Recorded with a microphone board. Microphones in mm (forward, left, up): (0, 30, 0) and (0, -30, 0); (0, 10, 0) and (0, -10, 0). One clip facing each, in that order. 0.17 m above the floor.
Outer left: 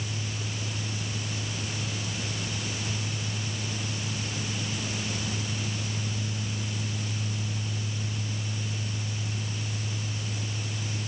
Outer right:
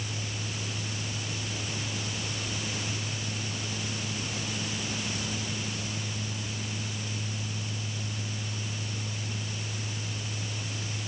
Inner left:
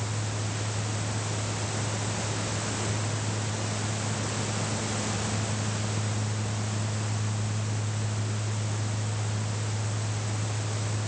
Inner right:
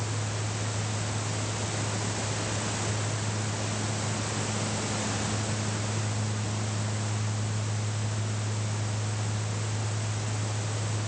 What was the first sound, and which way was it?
Only background noise.